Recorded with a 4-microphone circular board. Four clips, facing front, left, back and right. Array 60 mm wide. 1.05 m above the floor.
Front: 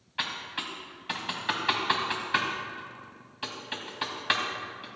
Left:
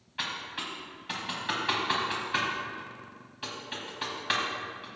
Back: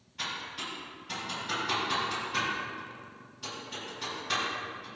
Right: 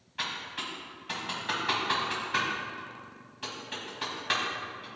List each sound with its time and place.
0.2 s typing on a keyboard: 5° left, 2 m